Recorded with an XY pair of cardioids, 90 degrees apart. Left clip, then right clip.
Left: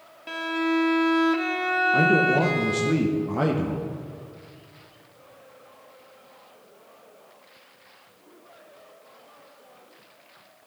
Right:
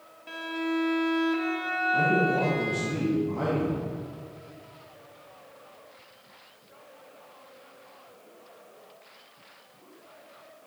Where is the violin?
50° left, 0.6 m.